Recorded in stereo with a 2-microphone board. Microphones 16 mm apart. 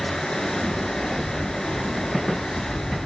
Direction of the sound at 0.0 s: 40° left (ahead or behind).